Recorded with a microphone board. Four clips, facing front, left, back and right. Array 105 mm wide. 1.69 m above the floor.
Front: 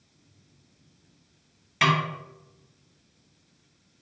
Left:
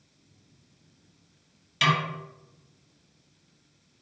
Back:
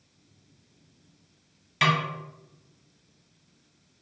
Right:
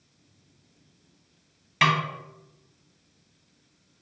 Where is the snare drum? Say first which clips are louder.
Right 2 dB, front 1 dB; 75° right, 1.1 m.